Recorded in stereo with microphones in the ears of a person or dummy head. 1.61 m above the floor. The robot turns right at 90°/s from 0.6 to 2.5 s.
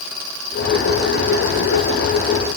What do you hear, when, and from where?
Only background noise.